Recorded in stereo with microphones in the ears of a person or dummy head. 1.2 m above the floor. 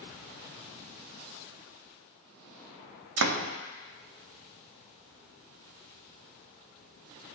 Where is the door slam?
70° right (ahead or behind), 0.6 m.